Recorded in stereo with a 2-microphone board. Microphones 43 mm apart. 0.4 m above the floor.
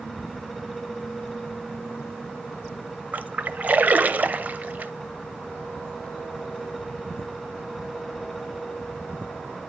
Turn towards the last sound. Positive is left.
turn(degrees=-40)  # may be behind; listen again after turning